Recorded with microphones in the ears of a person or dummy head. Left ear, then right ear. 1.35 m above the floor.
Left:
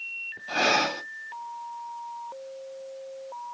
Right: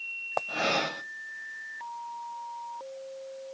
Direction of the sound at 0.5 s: 55° left (ahead or behind).